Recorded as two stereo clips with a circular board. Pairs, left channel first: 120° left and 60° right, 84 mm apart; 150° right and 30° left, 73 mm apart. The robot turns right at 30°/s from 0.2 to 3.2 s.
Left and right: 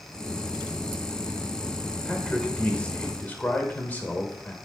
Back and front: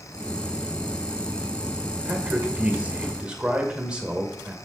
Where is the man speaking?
50° left, 1.1 m; by 4.5 s 85° left, 1.1 m.